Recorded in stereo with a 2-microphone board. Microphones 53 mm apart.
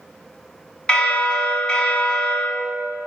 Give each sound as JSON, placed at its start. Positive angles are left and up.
{"t": 0.9, "sound": "a bell", "side_deg": 20, "distance_m": 0.9}